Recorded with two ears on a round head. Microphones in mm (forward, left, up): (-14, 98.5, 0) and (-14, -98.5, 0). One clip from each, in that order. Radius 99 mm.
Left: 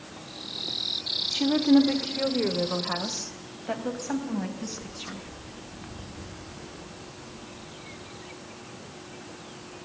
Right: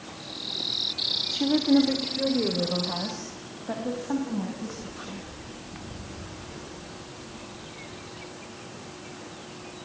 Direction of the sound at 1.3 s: 15° left (ahead or behind).